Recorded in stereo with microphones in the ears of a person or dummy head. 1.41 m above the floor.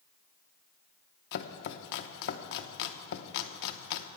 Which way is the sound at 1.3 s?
65° left (ahead or behind).